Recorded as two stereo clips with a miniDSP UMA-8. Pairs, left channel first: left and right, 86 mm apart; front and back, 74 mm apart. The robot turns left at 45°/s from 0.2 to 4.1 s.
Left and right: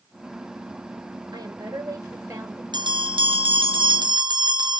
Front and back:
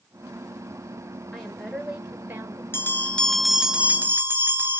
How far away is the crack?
No crack in this recording.